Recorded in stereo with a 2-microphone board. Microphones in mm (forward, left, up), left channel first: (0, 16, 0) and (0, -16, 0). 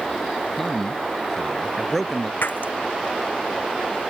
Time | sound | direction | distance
0.6 | a man speaking | 10° left (ahead or behind) | ?
2.4 | breaking glass | 80° left | ?